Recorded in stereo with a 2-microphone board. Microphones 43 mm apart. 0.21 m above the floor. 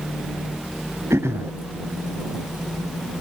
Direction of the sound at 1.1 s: 80° right.